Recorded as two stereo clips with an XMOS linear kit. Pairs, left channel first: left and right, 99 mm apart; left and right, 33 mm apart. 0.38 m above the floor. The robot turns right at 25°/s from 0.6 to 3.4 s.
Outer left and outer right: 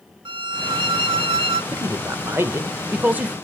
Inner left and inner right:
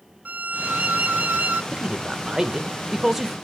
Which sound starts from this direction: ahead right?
A man speaking, at 1.7 s.